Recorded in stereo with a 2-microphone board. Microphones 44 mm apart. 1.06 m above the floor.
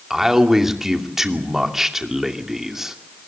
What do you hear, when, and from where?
0.1 s a man speaking: 10° right (ahead or behind), 2.5 m